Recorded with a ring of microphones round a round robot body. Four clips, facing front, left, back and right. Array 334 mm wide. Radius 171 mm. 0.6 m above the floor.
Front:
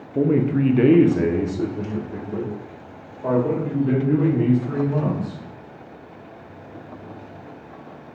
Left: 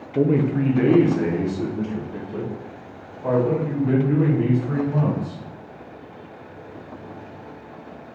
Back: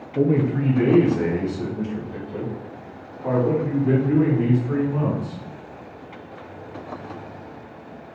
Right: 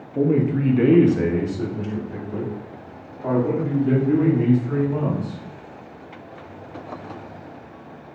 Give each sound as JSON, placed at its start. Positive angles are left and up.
{"t": 0.1, "sound": "a man speaking", "azimuth_deg": 35, "distance_m": 0.6}